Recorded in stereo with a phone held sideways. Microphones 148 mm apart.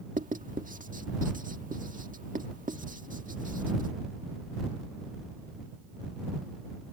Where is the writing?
70° right (ahead or behind).